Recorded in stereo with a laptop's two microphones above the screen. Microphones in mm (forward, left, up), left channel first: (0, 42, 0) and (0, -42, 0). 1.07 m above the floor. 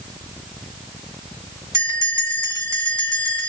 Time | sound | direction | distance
1.7 | a bell | 35° right (ahead or behind) | 1.6 m